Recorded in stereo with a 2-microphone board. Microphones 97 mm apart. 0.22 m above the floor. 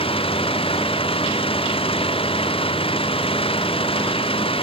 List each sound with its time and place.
0.0 s an engine running: 85° left